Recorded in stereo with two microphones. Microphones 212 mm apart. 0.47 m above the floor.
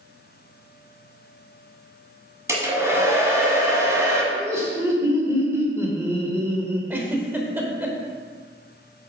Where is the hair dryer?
15° right (ahead or behind), 1.4 m.